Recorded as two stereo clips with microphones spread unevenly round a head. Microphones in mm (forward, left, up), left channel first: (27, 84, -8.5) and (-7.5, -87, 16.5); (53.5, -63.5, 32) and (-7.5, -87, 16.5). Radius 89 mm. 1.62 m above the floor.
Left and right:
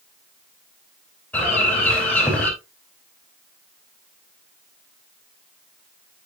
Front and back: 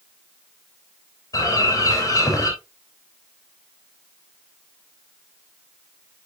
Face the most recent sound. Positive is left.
turn(degrees=-5)